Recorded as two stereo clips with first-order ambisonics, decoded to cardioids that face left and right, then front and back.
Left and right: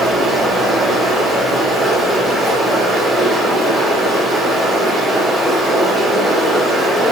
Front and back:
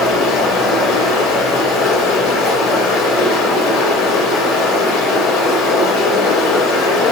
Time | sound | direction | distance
0.0 | running water | 15° right | 1.1 m